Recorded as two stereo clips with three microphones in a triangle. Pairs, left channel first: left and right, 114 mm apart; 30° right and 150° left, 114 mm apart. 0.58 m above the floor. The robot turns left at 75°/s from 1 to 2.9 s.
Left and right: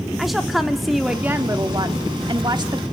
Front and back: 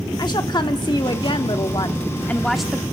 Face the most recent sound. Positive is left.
turn(degrees=-145)